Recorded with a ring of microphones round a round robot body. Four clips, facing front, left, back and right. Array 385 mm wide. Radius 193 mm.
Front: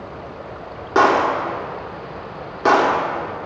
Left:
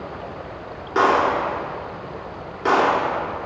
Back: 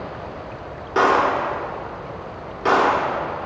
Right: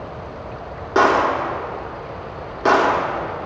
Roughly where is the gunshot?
Ahead right.